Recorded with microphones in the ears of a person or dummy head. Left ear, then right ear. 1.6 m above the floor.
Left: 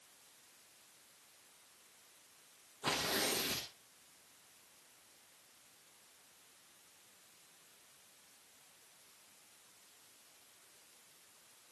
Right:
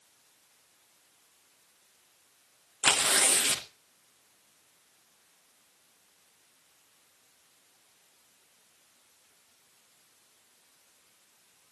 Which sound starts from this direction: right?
Tearing paper, at 2.8 s.